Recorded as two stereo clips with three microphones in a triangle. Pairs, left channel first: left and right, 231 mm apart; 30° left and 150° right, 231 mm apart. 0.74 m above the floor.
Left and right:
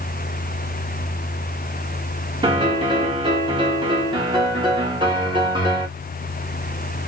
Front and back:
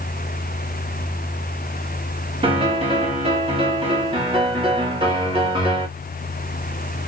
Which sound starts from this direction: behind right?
A piano, at 2.4 s.